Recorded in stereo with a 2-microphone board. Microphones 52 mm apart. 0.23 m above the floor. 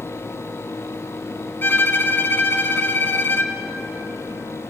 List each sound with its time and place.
1.6 s a violin: 45° left (ahead or behind), 1.4 m